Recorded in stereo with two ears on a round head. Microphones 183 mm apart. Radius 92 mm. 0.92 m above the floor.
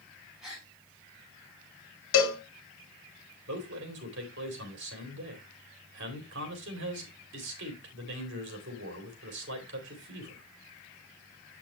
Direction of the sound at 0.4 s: 5° right (ahead or behind).